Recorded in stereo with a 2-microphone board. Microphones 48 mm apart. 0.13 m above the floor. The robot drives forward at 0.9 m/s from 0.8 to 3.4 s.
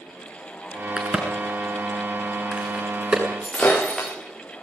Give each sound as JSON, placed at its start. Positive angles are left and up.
{"t": 1.0, "sound": "a crack", "side_deg": -15, "distance_m": 6.0}
{"t": 3.4, "sound": "breaking glass", "side_deg": 15, "distance_m": 8.5}